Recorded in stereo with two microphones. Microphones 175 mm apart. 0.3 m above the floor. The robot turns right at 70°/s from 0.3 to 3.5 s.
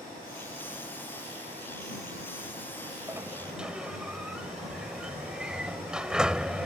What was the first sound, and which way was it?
A sliding door, 15° right (ahead or behind).